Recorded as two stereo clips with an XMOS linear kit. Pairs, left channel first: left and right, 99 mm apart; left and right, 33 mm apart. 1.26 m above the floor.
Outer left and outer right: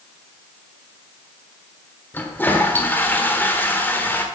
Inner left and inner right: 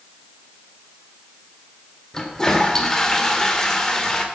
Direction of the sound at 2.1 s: 20° left (ahead or behind).